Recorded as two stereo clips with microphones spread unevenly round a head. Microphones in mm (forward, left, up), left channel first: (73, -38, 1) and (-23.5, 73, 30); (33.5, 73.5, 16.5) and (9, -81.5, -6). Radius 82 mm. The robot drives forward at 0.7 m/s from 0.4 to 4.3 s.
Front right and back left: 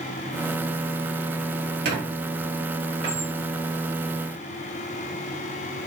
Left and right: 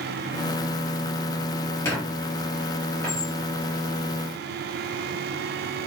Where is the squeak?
150° left, 2.5 m; by 3.3 s 160° left, 3.5 m.